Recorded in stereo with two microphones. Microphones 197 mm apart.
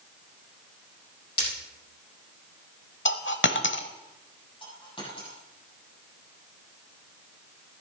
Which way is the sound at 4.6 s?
25° left (ahead or behind).